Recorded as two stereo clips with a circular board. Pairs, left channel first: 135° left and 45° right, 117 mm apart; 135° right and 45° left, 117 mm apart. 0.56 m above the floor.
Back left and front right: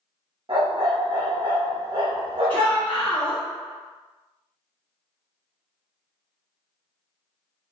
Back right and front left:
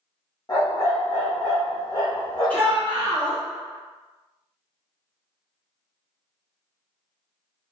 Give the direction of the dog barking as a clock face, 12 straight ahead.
3 o'clock.